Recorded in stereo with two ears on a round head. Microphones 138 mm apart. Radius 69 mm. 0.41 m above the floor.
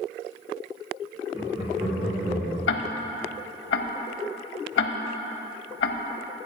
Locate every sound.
1.3 s laughter: 25° right (ahead or behind), 2.5 m; by 2.6 s 50° right (ahead or behind), 2.5 m
2.7 s ticking: 75° left (ahead or behind), 0.6 m